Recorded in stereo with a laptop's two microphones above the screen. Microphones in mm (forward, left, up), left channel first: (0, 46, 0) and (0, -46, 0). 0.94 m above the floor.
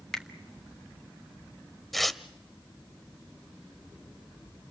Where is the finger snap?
5° left (ahead or behind), 1.8 m.